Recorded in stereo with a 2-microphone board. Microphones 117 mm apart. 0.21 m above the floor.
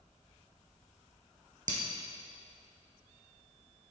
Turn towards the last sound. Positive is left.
turn(degrees=-85)